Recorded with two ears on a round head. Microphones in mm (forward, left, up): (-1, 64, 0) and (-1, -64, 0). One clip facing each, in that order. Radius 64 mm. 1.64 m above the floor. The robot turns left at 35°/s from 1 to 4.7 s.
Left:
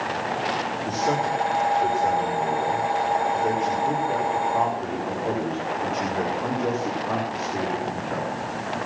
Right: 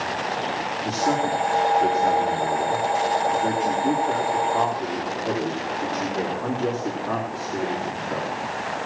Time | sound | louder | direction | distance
0.8 | a man speaking | right 2 dB | 45° right | 4 m